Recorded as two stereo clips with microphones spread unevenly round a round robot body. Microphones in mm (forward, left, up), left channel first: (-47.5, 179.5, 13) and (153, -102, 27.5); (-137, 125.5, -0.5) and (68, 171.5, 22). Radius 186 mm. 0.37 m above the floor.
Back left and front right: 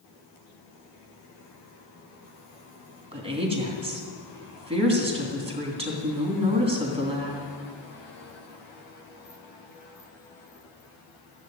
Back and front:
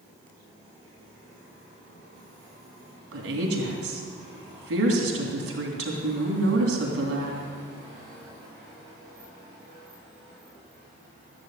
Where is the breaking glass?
No breaking glass in this recording.